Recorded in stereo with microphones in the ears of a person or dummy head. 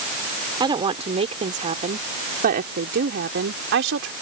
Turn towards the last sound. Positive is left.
turn(degrees=-65)  # may be behind; listen again after turning